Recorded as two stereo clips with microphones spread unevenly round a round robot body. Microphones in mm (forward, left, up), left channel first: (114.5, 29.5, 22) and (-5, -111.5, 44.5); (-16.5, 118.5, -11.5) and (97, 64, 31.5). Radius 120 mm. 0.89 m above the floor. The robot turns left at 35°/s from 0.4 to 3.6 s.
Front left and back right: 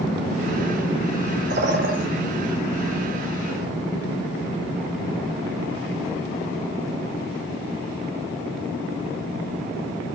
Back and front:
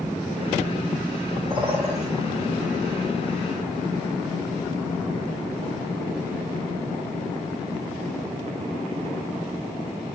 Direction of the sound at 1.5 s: 100° right.